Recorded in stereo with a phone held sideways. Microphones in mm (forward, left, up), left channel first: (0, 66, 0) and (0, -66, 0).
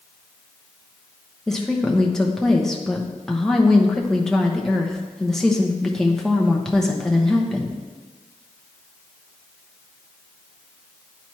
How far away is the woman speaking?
About 0.9 m.